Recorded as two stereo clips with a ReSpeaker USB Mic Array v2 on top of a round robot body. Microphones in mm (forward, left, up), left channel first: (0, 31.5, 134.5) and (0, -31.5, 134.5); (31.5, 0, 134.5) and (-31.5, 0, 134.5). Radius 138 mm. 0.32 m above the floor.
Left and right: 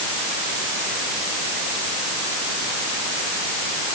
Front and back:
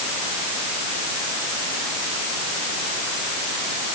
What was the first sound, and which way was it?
Only background noise.